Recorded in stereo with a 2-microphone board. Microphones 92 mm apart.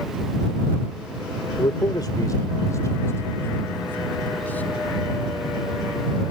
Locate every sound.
1.6 s a man speaking: 60° left (ahead or behind); by 4.8 s 20° left (ahead or behind)